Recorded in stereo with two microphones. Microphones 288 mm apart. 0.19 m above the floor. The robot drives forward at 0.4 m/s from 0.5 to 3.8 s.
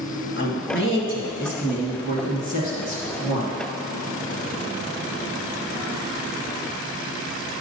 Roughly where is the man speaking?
Left.